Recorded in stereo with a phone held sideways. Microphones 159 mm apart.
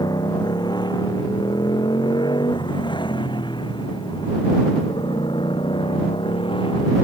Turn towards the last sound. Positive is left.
turn(degrees=35)  # may be behind; listen again after turning